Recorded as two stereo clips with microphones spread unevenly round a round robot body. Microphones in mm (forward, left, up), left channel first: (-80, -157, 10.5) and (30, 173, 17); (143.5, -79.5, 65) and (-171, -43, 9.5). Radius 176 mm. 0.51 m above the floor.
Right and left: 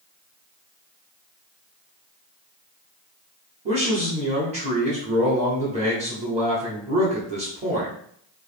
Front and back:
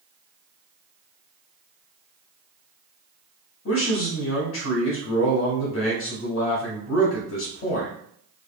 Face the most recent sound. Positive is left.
turn(degrees=15)